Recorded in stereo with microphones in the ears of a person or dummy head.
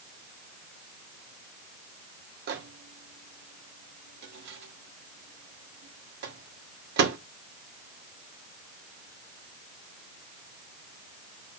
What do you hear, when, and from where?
2.5 s a microwave: 55° right (ahead or behind), 1.7 m